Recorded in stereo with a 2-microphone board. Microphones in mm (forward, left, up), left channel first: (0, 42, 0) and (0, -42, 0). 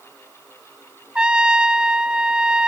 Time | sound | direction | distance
1.1 | a trumpet | 10° right (ahead or behind) | 0.5 m